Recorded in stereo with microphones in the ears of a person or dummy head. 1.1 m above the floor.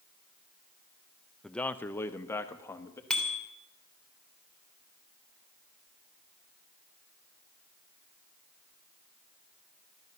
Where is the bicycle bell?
10° left (ahead or behind), 3 m.